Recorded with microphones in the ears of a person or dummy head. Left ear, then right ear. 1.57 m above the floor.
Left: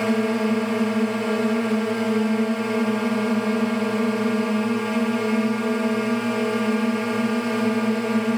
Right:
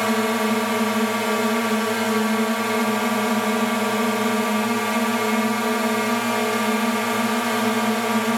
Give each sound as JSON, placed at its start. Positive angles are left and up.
{"t": 0.0, "sound": "a drone", "side_deg": -40}